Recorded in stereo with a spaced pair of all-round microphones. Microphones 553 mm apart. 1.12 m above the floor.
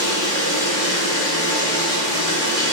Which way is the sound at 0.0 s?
85° left.